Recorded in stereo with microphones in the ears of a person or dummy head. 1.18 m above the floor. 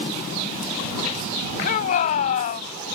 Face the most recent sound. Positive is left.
turn(degrees=40)  # may be behind; listen again after turning